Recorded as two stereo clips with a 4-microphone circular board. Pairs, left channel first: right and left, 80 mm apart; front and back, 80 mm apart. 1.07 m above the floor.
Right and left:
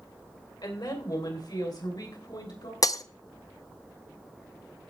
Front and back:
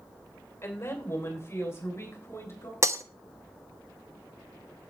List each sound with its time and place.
0.6 s a woman speaking: 55° right, 3.5 m
2.8 s breaking glass: 130° right, 0.7 m